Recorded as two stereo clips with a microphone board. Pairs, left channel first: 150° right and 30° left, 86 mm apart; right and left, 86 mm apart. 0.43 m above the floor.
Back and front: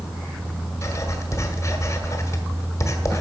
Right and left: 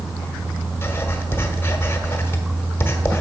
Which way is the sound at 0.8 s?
130° right.